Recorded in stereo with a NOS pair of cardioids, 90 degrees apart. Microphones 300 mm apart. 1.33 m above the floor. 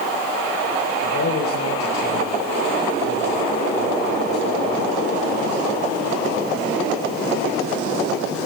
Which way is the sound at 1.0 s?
65° left.